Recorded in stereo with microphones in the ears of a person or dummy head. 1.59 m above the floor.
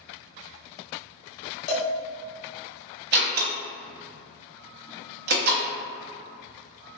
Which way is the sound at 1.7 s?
40° left (ahead or behind).